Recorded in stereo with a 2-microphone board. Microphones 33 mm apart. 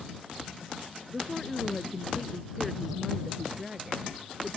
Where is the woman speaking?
10° left (ahead or behind); by 4.6 s 10° right (ahead or behind).